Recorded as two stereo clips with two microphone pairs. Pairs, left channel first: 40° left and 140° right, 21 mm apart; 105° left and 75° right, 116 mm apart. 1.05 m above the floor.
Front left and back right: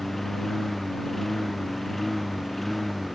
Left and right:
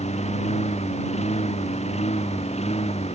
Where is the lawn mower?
125° left; by 3.2 s 130° left.